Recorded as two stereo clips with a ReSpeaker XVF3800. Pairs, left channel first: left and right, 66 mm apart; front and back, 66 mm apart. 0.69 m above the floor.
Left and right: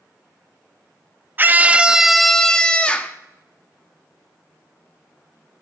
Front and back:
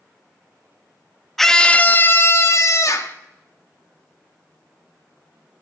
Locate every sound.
1.4 s a scream: 85° right, 0.5 m; by 3.1 s 20° left, 0.9 m